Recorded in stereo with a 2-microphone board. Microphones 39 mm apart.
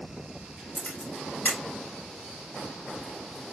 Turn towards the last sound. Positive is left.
turn(degrees=40)  # may be behind; listen again after turning